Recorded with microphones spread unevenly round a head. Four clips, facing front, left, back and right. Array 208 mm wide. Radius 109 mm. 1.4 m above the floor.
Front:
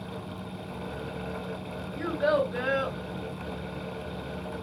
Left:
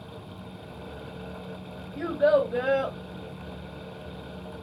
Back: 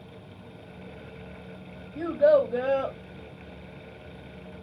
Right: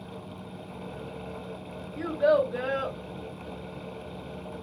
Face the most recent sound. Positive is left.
turn(degrees=150)